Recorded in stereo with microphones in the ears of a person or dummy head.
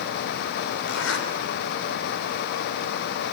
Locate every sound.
0.9 s a zipper: 75° left (ahead or behind), 3 m